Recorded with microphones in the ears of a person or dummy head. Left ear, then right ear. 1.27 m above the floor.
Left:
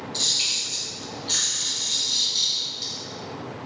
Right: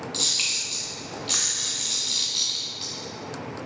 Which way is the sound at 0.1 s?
50° right (ahead or behind).